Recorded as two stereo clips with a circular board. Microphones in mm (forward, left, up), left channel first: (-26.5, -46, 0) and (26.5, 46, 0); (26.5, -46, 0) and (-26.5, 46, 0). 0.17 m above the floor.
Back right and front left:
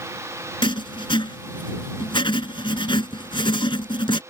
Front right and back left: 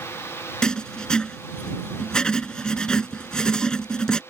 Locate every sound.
0.6 s writing: 140° right